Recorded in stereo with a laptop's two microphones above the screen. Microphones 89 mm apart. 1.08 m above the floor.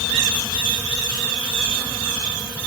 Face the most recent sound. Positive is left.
No sound to turn to.